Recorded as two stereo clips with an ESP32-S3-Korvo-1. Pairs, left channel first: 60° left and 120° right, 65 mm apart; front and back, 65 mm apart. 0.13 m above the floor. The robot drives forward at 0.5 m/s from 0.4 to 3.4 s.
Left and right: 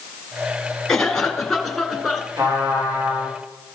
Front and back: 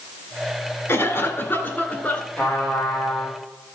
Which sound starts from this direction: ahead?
A cough, at 0.9 s.